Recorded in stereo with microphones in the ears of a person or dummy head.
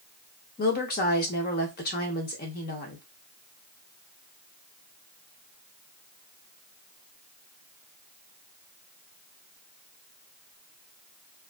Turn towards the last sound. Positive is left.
turn(degrees=45)  # may be behind; listen again after turning